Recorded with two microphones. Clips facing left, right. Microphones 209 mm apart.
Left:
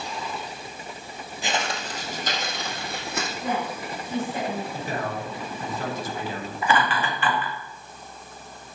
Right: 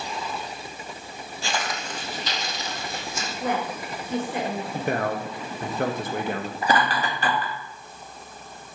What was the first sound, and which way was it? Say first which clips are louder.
Footsteps: left 2 dB; 15° left (ahead or behind).